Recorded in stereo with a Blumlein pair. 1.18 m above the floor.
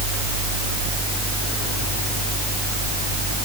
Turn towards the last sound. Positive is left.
No sound to turn to.